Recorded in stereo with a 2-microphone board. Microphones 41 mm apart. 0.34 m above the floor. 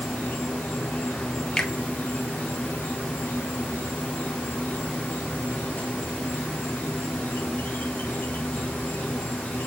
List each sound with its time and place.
0.0 s an insect: 60° left (ahead or behind), 1.0 m
1.6 s a finger snap: 15° left (ahead or behind), 0.8 m